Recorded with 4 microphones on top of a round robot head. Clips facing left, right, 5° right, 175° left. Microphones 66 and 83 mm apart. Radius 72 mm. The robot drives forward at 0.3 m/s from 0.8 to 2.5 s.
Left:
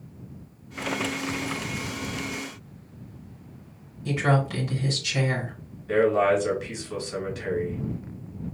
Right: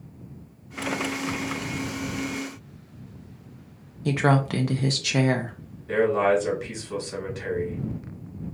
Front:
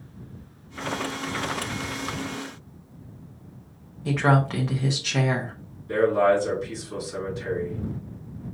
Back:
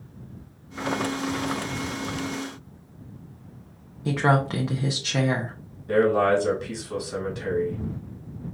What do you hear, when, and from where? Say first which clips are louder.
4.0 s a woman speaking: right 2 dB, even; 105° right, 0.7 m
5.9 s a man speaking: even, even; 165° right, 2.5 m